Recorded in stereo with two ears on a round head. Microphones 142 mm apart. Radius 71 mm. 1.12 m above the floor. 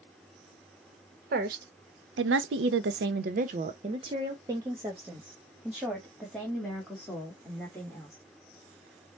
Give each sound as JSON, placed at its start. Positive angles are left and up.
{"t": 1.3, "sound": "a woman speaking", "side_deg": -60, "distance_m": 1.1}